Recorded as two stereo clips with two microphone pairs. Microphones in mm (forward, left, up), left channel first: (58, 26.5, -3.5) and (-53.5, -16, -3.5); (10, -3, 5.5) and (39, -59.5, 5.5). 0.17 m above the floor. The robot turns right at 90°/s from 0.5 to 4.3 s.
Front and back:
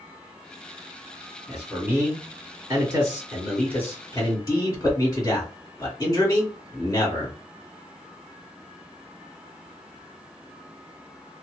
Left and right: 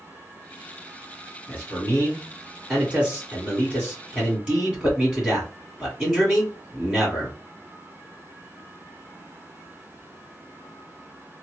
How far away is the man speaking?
About 1.9 m.